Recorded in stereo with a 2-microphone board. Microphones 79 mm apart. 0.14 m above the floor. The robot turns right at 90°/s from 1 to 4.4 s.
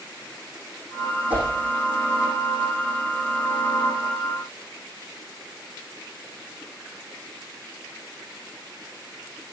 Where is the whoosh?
15° right (ahead or behind), 5.5 m; by 1.5 s 30° right (ahead or behind), 5.5 m.